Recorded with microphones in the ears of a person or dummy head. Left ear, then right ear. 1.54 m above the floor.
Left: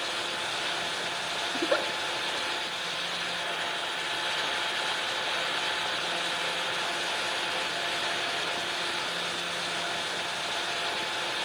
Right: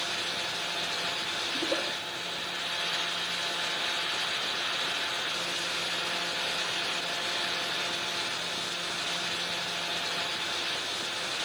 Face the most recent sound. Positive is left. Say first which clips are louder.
# left 4 dB
turn(degrees=50)  # may be behind; listen again after turning